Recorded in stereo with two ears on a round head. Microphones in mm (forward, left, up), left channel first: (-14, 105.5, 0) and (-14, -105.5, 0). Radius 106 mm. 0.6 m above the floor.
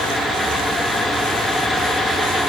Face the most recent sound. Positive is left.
No sound to turn to.